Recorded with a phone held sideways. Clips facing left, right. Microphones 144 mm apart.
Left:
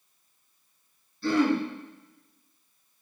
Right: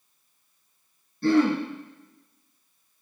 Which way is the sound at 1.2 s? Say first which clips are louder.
Right 3 dB; 50° right (ahead or behind).